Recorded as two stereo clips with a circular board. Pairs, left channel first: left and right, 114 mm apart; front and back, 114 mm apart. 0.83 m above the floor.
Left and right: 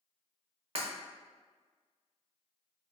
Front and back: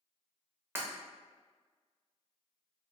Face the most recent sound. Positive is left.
turn(degrees=-115)